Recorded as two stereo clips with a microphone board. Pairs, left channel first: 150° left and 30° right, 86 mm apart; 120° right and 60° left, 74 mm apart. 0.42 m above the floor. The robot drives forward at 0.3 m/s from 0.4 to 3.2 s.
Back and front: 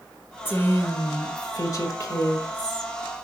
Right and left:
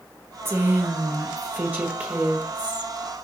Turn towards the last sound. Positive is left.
turn(degrees=130)